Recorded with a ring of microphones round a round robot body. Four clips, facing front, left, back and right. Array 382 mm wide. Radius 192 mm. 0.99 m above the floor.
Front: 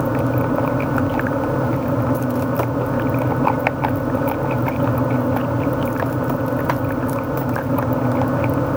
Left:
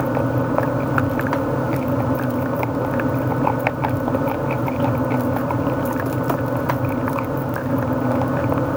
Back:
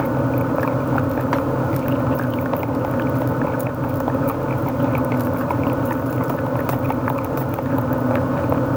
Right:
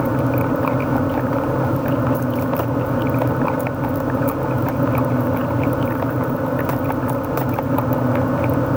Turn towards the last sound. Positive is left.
No sound to turn to.